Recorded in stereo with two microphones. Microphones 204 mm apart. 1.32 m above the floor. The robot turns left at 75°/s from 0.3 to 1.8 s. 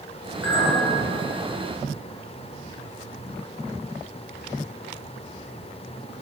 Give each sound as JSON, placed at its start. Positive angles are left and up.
{"t": 0.4, "sound": "a clink", "side_deg": 80, "distance_m": 4.0}